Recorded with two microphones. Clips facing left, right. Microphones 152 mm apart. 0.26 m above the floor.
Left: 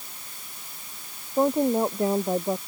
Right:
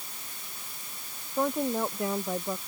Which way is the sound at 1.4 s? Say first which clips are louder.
Left 6 dB; 30° left (ahead or behind).